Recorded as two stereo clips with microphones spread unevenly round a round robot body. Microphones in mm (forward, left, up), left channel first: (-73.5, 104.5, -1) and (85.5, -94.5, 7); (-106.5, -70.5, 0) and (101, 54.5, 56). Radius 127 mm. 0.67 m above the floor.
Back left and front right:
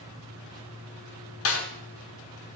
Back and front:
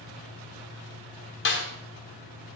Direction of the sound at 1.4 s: 165° left.